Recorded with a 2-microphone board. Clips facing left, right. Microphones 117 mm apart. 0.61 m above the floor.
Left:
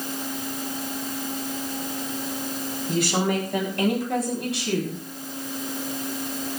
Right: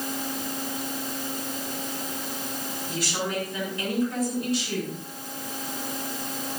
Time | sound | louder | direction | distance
2.9 | a woman speaking | left 7 dB | 60° left (ahead or behind) | 5 m